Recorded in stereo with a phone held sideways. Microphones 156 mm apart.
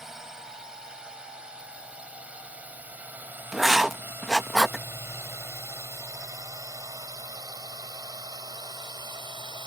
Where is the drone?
5° right (ahead or behind); by 9.7 s 30° right (ahead or behind).